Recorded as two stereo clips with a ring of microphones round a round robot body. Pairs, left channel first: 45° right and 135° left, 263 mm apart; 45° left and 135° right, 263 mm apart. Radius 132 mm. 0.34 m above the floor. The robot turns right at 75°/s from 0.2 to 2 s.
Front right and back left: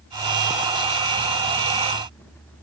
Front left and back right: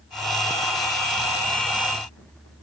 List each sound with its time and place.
Only background noise.